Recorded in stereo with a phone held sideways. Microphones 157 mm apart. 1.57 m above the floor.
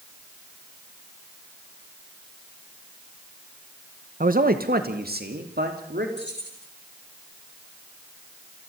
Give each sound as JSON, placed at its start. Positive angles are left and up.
{"t": 4.2, "sound": "a man speaking", "side_deg": -55, "distance_m": 1.0}
{"t": 6.2, "sound": "keys jangling", "side_deg": 85, "distance_m": 6.5}